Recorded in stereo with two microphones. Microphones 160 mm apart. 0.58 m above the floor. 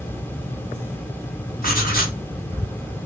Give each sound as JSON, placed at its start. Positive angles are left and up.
{"t": 1.6, "sound": "writing", "side_deg": 65, "distance_m": 1.9}